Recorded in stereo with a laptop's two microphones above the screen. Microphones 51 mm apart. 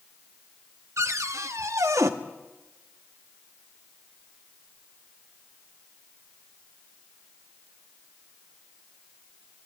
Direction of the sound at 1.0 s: 85° right.